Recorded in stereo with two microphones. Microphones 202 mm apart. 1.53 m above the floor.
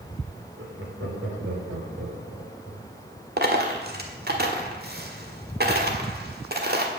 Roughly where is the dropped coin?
Right.